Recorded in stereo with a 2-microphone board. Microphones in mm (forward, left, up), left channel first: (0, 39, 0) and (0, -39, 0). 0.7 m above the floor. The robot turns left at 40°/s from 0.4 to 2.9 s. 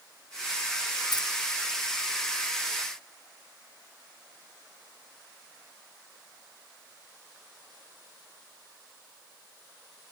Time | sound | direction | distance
1.1 | keys jangling | 65° left (ahead or behind) | 1.3 m